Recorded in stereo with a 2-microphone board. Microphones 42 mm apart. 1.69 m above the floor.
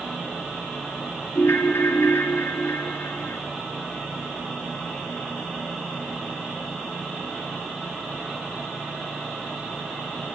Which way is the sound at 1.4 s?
75° left (ahead or behind).